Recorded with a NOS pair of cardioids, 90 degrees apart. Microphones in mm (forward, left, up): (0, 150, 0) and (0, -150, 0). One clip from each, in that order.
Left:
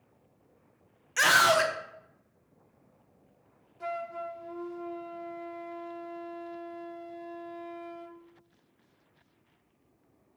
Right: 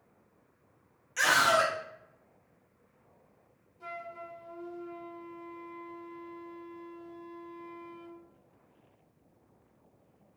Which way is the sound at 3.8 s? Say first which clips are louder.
Left 7 dB; 45° left.